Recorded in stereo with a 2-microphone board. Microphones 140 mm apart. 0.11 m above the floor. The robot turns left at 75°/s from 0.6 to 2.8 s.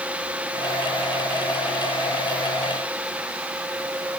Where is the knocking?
I don't hear knocking.